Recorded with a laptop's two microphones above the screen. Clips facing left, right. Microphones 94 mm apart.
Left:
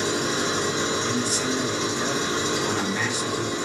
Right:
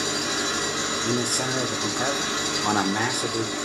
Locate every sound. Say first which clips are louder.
0.0 s an engine running: left 3 dB; 50° left (ahead or behind), 2.0 m
1.1 s a man speaking: even; 45° right (ahead or behind), 0.5 m